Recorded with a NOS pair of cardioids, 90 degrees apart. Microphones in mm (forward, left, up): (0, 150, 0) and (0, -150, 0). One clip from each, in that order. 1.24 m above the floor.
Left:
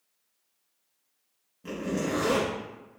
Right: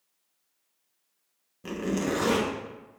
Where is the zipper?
35° right, 1.0 m.